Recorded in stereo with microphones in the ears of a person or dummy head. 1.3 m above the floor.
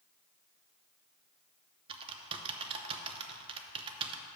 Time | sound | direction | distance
1.9 | typing on a keyboard | 25° right (ahead or behind) | 0.6 m